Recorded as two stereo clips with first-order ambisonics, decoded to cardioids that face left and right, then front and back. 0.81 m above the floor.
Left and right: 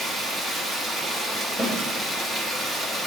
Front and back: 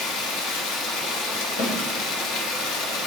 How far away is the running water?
About 1.0 m.